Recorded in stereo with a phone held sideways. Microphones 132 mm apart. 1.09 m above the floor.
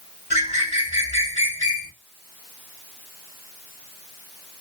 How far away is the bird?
About 2.5 m.